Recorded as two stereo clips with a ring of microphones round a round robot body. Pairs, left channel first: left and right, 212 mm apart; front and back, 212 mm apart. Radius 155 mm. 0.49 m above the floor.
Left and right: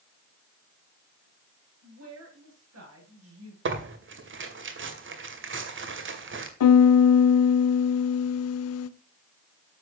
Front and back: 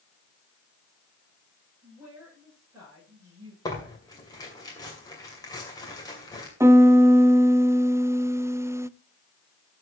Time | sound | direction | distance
1.8 | a woman speaking | 95° right | 9.5 m
3.6 | tearing paper | 75° right | 2.5 m
6.6 | a piano | 100° left | 0.6 m